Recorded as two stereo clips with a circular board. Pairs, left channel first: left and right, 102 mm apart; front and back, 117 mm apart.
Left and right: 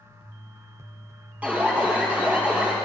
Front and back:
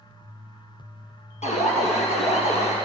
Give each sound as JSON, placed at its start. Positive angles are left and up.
{"t": 1.4, "sound": "an alarm", "azimuth_deg": -15, "distance_m": 3.5}